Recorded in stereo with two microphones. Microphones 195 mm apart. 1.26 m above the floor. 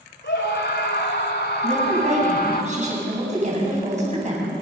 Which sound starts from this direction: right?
A woman speaking, at 1.6 s.